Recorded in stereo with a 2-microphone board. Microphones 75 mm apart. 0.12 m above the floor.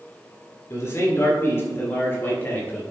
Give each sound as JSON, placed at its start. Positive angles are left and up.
{"t": 0.7, "sound": "a man speaking", "side_deg": 40, "distance_m": 2.0}